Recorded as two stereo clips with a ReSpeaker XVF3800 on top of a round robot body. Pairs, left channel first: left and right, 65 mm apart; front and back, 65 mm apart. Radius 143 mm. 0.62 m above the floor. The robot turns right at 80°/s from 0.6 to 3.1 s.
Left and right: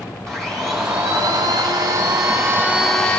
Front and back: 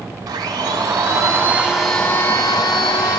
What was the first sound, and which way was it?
A blender, 175° left.